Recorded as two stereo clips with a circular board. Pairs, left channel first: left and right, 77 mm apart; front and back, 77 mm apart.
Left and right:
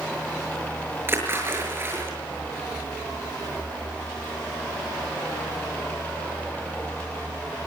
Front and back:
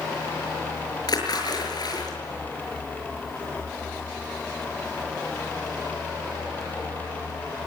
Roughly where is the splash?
Ahead right.